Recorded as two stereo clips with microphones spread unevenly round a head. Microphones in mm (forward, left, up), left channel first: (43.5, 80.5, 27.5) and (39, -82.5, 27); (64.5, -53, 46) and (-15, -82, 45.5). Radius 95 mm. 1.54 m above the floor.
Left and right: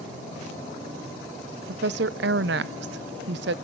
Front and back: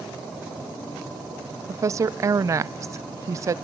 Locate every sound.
1.7 s a woman speaking: 110° right, 0.6 m